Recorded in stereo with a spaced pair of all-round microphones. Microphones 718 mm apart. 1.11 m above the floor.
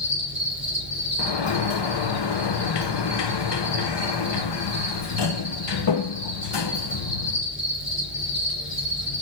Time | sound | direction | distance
0.0 | an insect | 85° left | 3.5 m
1.2 | a sliding door | 40° left (ahead or behind) | 0.6 m